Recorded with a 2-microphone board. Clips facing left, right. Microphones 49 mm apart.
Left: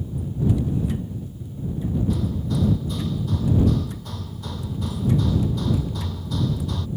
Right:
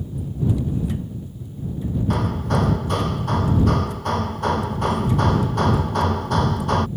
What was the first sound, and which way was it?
Hammering, 60° right (ahead or behind).